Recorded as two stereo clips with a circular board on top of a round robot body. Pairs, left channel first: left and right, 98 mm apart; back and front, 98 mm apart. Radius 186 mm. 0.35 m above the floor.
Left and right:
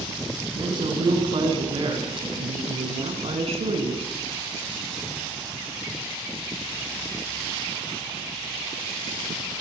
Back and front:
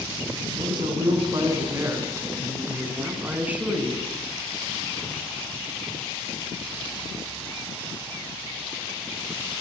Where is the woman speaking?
45° right, 6 m; by 4.1 s 80° right, 7.5 m.